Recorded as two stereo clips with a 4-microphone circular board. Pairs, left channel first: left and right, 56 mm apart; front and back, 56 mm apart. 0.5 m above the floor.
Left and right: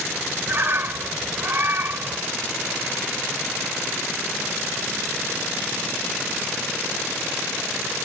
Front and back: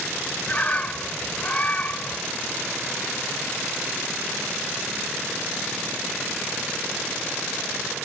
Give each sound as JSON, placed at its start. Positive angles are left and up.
{"t": 0.5, "sound": "a bird", "azimuth_deg": -55}